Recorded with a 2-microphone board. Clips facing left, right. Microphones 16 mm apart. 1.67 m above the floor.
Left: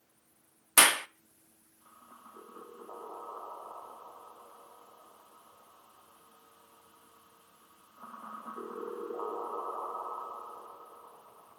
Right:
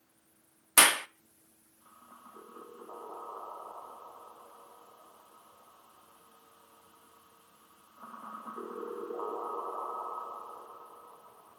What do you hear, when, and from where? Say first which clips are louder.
0.8 s a clap: even; centre (ahead or behind), 0.5 m